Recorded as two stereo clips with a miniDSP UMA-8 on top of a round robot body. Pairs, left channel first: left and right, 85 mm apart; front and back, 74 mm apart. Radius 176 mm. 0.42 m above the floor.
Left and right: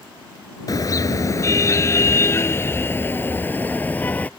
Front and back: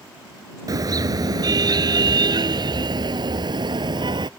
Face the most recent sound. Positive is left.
turn(degrees=165)